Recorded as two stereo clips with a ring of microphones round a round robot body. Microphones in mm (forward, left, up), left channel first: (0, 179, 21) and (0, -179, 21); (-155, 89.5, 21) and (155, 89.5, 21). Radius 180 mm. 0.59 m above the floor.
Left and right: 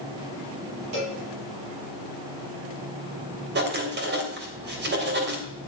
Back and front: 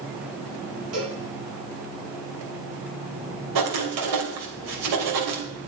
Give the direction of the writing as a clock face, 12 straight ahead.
1 o'clock.